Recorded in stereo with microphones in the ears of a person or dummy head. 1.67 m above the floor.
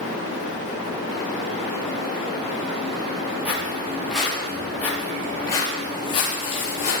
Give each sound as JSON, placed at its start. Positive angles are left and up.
{"t": 3.5, "sound": "footsteps", "side_deg": -10, "distance_m": 4.5}